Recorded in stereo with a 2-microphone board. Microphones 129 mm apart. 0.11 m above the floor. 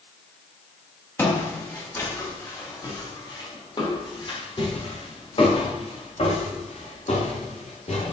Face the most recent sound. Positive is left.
turn(degrees=55)  # may be behind; listen again after turning